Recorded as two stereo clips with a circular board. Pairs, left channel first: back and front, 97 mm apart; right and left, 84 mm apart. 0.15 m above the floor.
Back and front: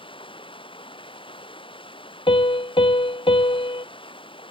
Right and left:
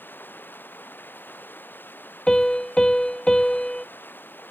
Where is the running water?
155° right.